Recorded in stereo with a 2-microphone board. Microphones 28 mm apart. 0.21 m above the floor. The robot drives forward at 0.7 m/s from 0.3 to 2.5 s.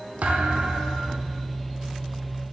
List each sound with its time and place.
0.2 s a thud: 65° right (ahead or behind), 1.7 m; by 1.4 s 45° right (ahead or behind), 2 m